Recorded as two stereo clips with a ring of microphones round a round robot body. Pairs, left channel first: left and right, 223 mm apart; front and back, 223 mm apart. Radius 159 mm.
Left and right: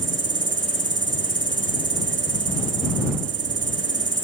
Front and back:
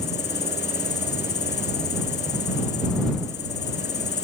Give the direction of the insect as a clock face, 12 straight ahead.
2 o'clock.